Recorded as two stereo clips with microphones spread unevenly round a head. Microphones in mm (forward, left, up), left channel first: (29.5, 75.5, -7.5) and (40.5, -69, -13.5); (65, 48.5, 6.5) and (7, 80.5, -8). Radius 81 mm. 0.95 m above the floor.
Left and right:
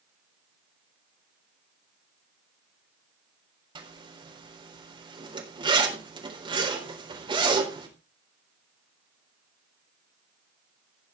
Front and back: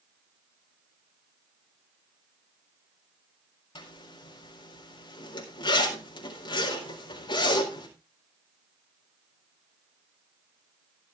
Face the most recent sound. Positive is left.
turn(degrees=-30)